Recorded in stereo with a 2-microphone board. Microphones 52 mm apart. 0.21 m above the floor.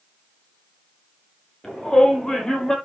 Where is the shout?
10° left (ahead or behind), 6 m.